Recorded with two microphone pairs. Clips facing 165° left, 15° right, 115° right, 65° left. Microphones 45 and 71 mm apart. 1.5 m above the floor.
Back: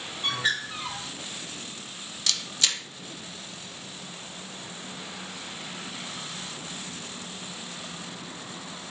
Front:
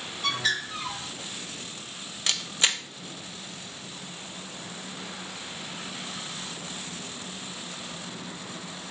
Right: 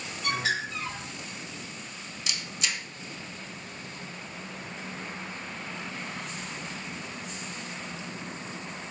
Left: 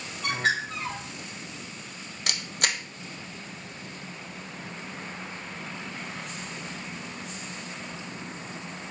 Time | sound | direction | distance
0.2 | a bird | 100° left | 3.5 m
2.3 | a camera shutter | 45° left | 0.7 m